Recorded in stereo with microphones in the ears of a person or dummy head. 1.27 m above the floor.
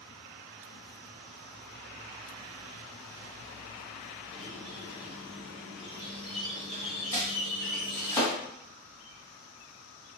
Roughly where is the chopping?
Centre.